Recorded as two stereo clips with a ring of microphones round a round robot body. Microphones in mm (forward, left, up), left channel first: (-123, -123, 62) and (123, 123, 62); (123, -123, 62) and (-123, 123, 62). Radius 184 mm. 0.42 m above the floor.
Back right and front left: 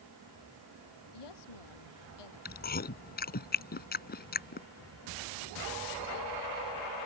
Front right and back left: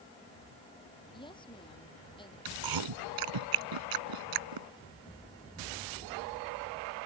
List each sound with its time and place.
1.1 s a woman speaking: 120° right
2.5 s chewing: 160° left